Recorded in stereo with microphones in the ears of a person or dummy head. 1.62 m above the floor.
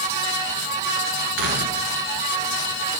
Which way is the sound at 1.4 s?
65° right (ahead or behind).